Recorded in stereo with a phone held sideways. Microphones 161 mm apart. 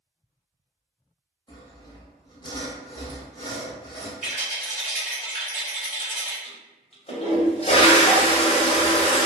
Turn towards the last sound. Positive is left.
turn(degrees=40)  # may be behind; listen again after turning